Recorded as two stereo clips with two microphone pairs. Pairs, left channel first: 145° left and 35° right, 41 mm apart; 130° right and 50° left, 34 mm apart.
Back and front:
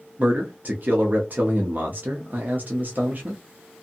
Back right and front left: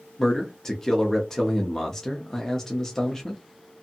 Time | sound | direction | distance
0.2 | a man speaking | 55° right | 0.6 m